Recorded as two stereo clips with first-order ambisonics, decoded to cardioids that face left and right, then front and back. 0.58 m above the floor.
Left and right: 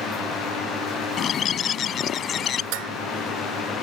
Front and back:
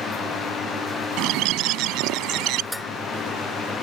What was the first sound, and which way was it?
A bird, 145° left.